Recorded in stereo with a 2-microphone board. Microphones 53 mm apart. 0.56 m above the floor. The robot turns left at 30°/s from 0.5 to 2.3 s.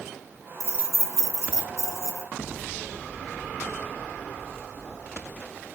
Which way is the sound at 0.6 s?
60° right (ahead or behind).